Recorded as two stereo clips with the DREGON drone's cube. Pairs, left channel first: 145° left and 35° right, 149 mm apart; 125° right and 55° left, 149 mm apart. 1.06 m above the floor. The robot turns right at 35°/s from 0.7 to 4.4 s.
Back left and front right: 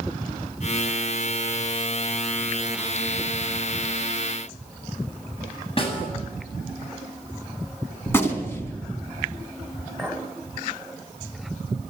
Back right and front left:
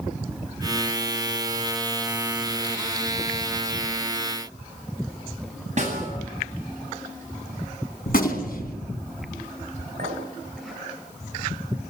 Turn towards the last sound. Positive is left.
turn(degrees=60)